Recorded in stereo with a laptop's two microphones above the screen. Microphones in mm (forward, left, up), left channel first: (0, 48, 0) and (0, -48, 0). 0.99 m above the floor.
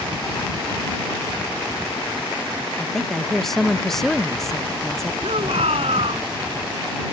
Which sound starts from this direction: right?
A shout, at 5.2 s.